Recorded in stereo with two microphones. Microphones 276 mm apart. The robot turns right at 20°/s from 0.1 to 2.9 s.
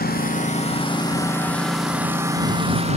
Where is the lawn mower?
145° left; by 3.0 s 155° right.